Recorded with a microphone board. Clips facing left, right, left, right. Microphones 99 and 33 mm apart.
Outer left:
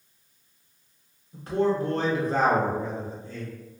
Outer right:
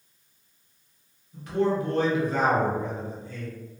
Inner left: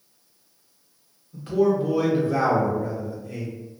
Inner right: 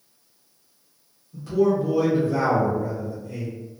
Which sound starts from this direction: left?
A man speaking, at 1.3 s.